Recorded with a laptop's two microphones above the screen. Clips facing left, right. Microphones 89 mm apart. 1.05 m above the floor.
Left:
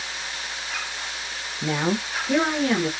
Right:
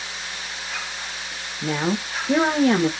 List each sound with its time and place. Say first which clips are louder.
1.6 s a woman speaking: even; 10° left (ahead or behind), 0.8 m; by 2.9 s 35° right (ahead or behind), 1.1 m